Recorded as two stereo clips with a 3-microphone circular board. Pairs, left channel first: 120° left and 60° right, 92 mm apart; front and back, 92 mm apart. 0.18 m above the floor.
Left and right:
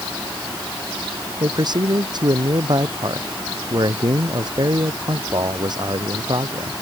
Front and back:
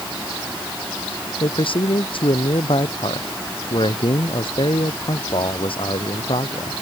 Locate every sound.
1.4 s a man speaking: 20° right